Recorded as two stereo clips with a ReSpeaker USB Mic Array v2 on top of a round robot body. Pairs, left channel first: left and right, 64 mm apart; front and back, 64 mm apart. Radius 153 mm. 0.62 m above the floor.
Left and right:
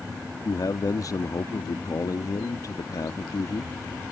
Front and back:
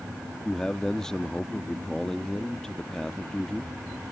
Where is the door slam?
I don't hear a door slam.